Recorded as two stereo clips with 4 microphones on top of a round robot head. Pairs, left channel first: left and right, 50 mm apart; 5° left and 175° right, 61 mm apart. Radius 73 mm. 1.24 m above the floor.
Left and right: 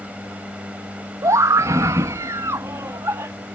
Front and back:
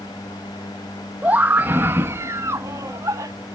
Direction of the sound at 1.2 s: 105° right.